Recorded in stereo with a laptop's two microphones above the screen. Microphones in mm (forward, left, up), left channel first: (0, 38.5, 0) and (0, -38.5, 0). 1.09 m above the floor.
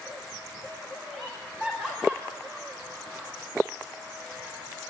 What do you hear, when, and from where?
1.1 s laughter: centre (ahead or behind), 4 m; by 3.3 s 15° right (ahead or behind), 5 m